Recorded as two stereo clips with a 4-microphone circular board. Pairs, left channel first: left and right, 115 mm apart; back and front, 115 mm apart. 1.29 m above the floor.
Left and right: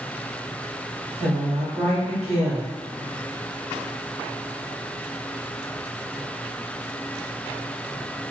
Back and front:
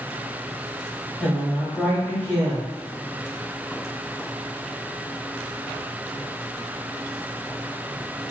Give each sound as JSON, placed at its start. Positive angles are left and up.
{"t": 1.2, "sound": "a woman speaking", "azimuth_deg": -105, "distance_m": 1.0}